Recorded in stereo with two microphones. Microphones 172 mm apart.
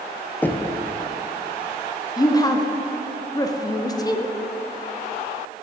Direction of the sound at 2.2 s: 20° left (ahead or behind).